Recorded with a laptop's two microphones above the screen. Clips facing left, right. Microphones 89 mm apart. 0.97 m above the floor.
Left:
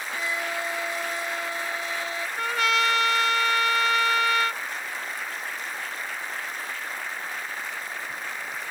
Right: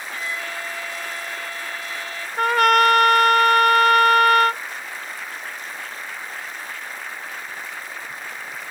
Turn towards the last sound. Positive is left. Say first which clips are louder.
# right 10 dB
turn(degrees=-55)  # may be behind; listen again after turning